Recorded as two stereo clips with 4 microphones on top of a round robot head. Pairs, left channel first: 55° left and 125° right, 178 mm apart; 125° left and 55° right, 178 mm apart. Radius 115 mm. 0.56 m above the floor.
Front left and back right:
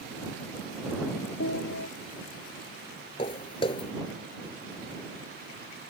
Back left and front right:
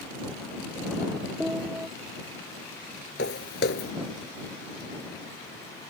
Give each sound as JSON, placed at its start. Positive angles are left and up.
{"t": 1.4, "sound": "a piano", "azimuth_deg": 30}
{"t": 3.2, "sound": "footsteps", "azimuth_deg": 110}